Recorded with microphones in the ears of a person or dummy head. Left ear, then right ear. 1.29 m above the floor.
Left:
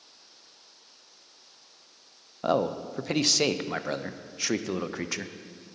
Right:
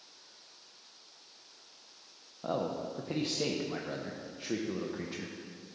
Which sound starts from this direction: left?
A man speaking, at 2.4 s.